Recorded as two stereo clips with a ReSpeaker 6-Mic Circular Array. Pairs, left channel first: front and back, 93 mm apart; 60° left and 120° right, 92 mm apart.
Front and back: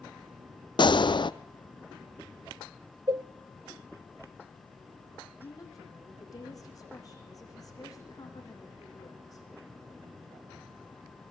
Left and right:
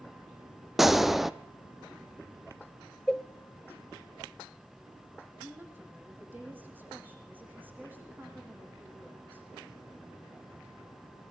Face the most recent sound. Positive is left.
turn(degrees=-50)